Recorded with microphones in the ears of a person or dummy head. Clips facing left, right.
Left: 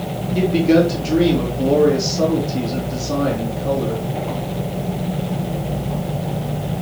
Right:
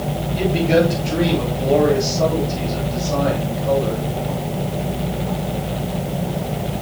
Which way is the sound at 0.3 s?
55° left (ahead or behind).